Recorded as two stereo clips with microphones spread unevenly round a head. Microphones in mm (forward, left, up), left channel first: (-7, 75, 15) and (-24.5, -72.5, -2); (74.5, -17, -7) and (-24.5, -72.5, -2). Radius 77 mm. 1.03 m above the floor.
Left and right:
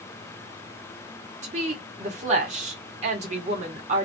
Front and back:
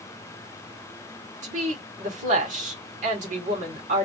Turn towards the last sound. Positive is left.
turn(degrees=-140)